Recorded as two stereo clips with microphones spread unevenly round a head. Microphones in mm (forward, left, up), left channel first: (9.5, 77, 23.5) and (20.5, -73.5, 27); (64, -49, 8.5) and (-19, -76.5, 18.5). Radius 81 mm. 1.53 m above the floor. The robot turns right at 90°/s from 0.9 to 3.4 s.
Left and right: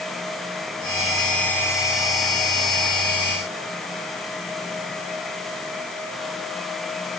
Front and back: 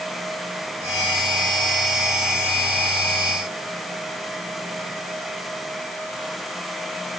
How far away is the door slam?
No door slam in this recording.